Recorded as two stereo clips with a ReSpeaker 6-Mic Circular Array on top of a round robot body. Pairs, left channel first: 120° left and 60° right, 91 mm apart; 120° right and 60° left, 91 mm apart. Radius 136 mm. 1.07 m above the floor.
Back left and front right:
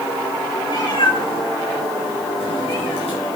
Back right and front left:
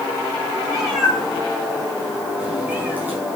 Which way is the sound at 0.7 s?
155° left.